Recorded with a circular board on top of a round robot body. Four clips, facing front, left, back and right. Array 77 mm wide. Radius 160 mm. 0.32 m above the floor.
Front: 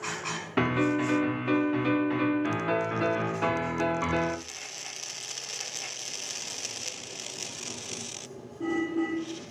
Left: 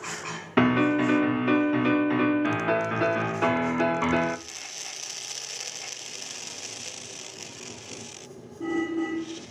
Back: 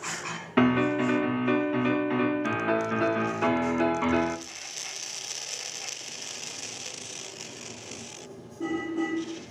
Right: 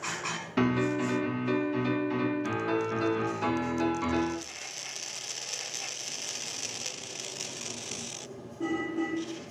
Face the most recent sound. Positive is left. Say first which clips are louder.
# left 6 dB, back 3 dB
turn(degrees=105)